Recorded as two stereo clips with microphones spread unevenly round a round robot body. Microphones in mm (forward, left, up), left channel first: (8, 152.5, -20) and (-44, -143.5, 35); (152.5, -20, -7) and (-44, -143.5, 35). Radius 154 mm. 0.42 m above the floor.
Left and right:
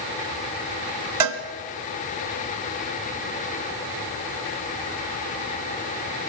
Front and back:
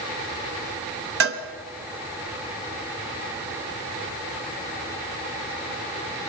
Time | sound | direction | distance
1.2 | a cowbell | 120° right | 1.2 m